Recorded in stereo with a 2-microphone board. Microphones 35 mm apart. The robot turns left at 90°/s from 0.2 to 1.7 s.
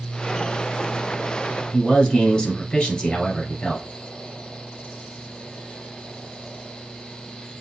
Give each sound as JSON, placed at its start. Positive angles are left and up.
{"t": 1.7, "sound": "a man speaking", "side_deg": 30, "distance_m": 2.0}